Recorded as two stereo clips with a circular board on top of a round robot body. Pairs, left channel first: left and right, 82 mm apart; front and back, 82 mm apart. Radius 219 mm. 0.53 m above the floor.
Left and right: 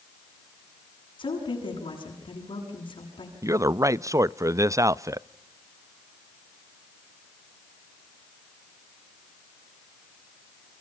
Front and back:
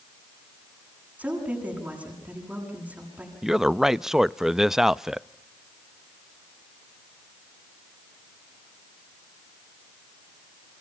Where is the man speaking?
100° right, 0.7 m.